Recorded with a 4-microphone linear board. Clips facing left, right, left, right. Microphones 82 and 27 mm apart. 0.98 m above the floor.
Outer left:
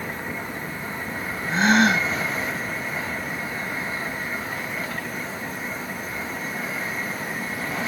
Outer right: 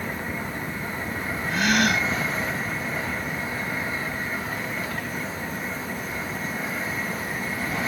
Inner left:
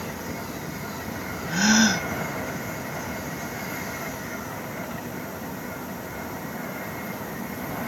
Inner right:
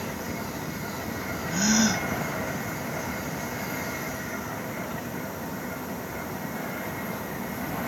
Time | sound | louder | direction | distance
1.5 | a gasp | outer left 4 dB, inner left 4 dB | 30° left (ahead or behind) | ?